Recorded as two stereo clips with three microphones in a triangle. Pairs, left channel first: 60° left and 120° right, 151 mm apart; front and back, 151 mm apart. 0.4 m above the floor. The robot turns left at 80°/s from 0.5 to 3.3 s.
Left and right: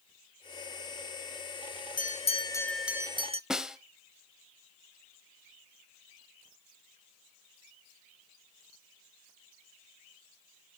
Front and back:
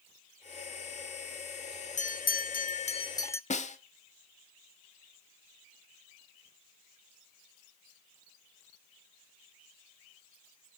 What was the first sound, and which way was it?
A bell, 35° left.